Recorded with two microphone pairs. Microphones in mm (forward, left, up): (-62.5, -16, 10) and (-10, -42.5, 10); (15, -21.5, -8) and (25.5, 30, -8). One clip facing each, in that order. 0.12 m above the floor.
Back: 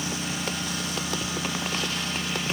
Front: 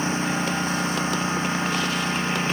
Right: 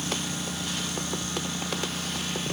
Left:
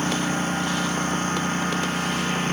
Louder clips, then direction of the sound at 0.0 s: Front 7 dB, left 8 dB; 30° left.